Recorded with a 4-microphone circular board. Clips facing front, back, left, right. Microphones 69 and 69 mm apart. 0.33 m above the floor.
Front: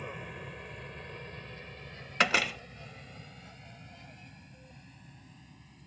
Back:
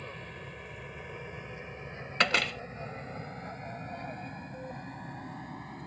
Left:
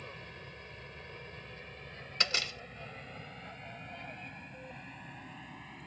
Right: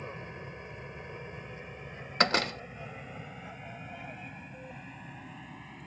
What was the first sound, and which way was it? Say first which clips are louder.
An aircraft: front 1 dB, right 6 dB; 65° right.